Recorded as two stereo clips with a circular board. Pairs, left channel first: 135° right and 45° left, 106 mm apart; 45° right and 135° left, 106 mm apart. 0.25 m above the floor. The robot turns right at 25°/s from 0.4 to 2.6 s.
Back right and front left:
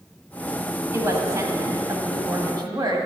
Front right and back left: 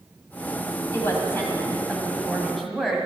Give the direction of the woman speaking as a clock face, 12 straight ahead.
12 o'clock.